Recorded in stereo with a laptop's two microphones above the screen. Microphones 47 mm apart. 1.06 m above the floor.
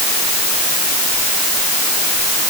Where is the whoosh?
No whoosh in this recording.